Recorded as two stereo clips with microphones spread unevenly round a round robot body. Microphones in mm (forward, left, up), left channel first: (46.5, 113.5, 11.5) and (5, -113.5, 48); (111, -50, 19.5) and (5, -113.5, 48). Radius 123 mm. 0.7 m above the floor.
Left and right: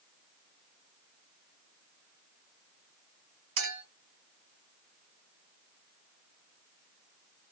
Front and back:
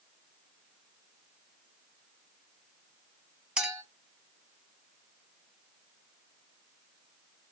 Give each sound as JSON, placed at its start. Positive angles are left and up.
{"t": 3.6, "sound": "a clink", "azimuth_deg": -65, "distance_m": 2.0}